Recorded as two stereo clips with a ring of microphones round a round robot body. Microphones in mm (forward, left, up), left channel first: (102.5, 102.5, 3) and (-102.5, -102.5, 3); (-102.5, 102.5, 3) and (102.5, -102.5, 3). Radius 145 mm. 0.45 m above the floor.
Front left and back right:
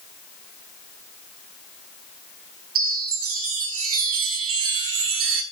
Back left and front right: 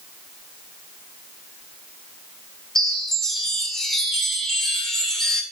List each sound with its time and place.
2.8 s a chime: 135° right, 1.7 m